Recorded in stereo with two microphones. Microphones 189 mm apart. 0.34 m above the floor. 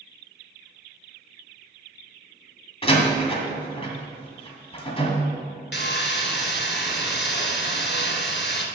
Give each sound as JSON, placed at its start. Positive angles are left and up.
{"t": 2.8, "sound": "a door slam", "side_deg": 30, "distance_m": 2.0}
{"t": 5.7, "sound": "sawing", "side_deg": 75, "distance_m": 1.3}